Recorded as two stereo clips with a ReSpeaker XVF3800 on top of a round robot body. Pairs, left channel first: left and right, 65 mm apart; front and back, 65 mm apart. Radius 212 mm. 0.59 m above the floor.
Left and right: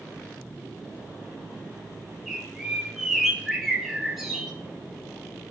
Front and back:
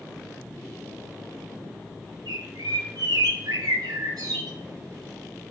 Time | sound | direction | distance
2.3 | a bird | 175° right | 2 m